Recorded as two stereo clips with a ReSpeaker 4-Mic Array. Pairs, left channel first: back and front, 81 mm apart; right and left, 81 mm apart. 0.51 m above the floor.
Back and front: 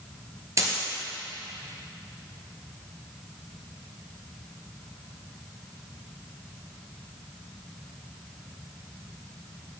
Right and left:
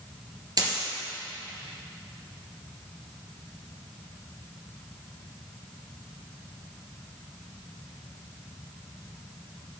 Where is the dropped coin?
50° left, 2 m.